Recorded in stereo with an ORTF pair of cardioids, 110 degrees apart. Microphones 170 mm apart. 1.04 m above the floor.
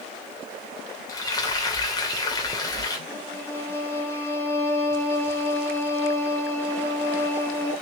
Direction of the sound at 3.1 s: 15° left.